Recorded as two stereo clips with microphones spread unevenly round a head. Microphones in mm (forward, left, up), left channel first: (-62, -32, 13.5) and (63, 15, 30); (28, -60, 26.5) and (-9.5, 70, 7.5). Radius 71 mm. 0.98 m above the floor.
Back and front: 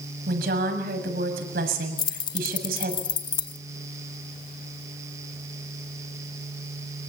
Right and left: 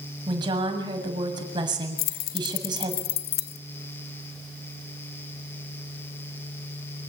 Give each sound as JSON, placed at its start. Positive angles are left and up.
{"t": 0.3, "sound": "a woman speaking", "azimuth_deg": 45, "distance_m": 7.0}
{"t": 2.0, "sound": "keys jangling", "azimuth_deg": -100, "distance_m": 1.1}